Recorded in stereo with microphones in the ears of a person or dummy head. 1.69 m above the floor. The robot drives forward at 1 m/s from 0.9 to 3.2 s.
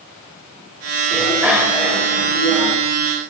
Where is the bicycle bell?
5° right (ahead or behind), 5 m.